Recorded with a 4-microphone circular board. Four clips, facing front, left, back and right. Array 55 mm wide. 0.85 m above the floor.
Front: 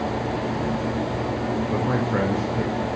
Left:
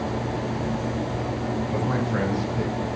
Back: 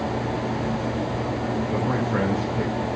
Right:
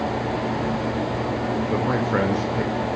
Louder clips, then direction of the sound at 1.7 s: Right 4 dB, front 1 dB; 75° right.